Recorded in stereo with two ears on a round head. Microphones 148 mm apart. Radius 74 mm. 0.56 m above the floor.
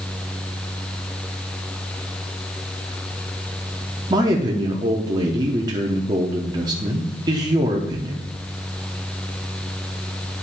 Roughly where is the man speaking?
Right.